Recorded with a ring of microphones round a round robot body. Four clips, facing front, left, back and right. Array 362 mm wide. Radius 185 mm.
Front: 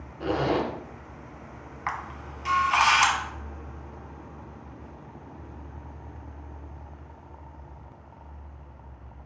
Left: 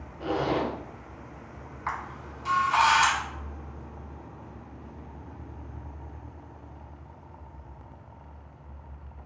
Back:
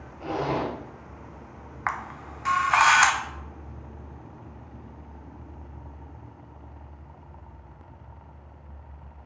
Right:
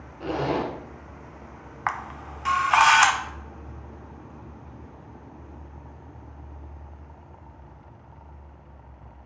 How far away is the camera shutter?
About 0.6 m.